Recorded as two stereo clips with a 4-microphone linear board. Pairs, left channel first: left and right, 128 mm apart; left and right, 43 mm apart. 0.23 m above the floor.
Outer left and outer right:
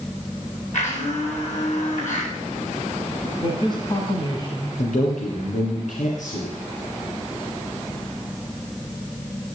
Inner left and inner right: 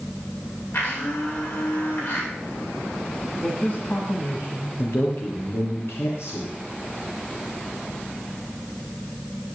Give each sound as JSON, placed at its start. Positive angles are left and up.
{"t": 0.7, "sound": "a blender", "side_deg": 70, "distance_m": 8.5}
{"t": 3.4, "sound": "a man speaking", "side_deg": 35, "distance_m": 2.5}
{"t": 4.8, "sound": "a man speaking", "side_deg": 75, "distance_m": 5.0}